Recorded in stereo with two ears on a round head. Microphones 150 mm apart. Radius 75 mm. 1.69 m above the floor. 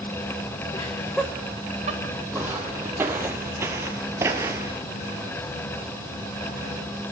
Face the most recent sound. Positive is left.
turn(degrees=-15)  # may be behind; listen again after turning